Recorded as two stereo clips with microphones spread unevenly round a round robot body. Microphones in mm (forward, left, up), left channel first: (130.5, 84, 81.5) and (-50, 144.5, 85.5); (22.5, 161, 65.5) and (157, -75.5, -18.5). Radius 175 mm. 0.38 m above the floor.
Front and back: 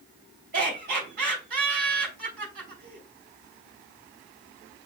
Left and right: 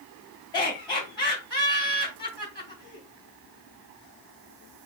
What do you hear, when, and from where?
0.5 s laughter: 155° right, 2.5 m